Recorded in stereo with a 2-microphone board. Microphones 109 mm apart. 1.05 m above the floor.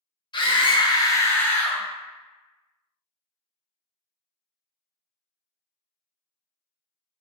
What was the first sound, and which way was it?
A scream, 45° left (ahead or behind).